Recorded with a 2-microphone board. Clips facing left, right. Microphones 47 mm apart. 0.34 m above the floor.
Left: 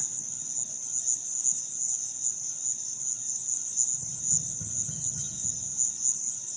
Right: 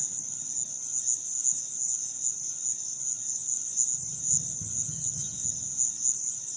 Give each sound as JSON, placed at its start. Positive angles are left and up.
{"t": 0.0, "sound": "an insect", "side_deg": 40, "distance_m": 0.7}
{"t": 3.9, "sound": "tapping", "side_deg": 50, "distance_m": 1.9}